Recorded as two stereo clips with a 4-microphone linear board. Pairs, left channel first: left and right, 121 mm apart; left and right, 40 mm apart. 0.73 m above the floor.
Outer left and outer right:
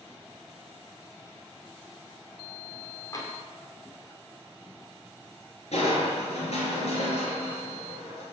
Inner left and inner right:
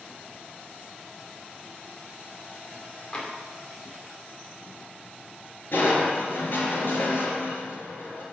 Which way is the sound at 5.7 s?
60° left (ahead or behind).